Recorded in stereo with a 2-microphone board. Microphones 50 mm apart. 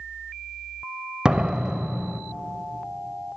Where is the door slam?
20° right (ahead or behind), 0.7 m.